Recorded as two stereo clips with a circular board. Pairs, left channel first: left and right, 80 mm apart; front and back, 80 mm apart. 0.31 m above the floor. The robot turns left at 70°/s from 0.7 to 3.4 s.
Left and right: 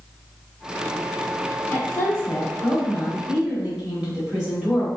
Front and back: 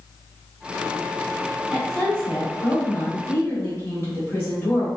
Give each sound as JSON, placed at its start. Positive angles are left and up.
{"t": 1.7, "sound": "a woman speaking", "azimuth_deg": 95, "distance_m": 1.1}